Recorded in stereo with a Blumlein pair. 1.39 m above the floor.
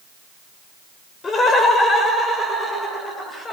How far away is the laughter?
About 5.5 m.